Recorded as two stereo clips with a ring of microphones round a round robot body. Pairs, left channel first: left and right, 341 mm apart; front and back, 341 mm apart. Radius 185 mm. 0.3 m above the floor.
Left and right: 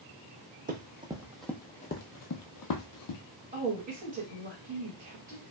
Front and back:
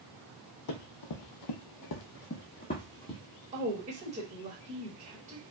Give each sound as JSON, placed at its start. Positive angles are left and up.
{"t": 0.7, "sound": "running footsteps", "azimuth_deg": -25, "distance_m": 0.9}
{"t": 3.5, "sound": "a woman speaking", "azimuth_deg": -130, "distance_m": 1.3}